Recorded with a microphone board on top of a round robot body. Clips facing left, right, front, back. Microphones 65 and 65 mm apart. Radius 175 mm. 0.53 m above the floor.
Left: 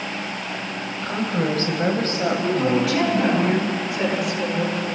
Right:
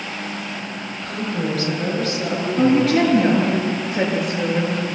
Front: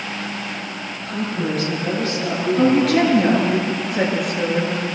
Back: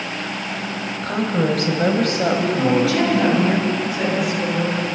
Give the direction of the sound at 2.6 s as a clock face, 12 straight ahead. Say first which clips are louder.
Right 8 dB, front 6 dB; 2 o'clock.